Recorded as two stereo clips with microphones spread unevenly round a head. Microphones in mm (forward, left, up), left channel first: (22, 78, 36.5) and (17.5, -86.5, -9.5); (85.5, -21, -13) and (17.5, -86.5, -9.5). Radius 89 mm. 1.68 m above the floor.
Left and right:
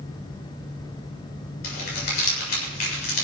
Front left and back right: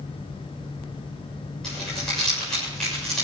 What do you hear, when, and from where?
1.6 s crumpling: 130° left, 7 m